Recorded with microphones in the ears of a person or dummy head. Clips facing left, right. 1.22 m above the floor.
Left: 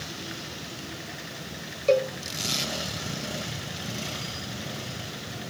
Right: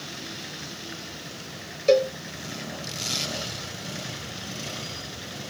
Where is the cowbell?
15° right (ahead or behind), 1.4 m.